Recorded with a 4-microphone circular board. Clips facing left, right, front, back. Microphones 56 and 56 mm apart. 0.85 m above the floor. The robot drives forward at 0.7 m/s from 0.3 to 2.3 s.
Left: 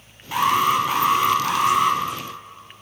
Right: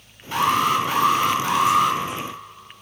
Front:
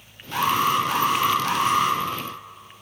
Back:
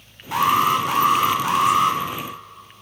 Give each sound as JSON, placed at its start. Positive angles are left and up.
{"t": 0.3, "sound": "an alarm", "azimuth_deg": 165, "distance_m": 4.0}